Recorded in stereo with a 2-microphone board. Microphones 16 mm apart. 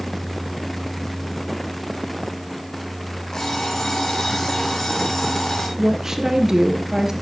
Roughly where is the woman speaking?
Right.